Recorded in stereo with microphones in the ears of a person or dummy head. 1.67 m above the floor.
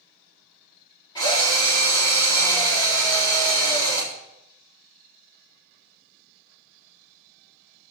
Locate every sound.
1.1 s a drill: 25° left (ahead or behind), 4.5 m